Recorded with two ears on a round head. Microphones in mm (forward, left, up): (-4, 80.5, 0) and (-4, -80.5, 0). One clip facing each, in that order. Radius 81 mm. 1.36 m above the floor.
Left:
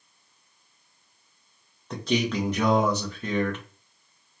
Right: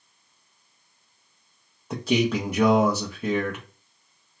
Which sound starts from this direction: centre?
A man speaking, at 1.9 s.